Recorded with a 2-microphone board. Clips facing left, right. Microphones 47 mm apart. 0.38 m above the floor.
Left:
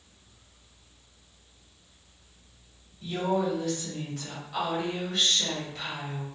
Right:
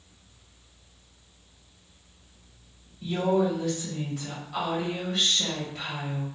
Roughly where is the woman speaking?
Centre.